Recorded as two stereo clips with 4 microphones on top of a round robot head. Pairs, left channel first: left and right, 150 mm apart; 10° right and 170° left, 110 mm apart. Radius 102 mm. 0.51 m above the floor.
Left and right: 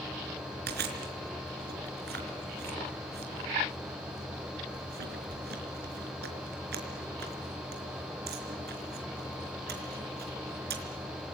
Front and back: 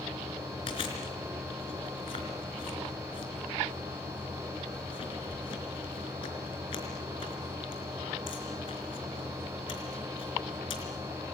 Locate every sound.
0.7 s chewing: 65° right, 4 m